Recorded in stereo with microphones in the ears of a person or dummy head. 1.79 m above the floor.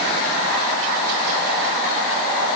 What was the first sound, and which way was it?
Only background noise.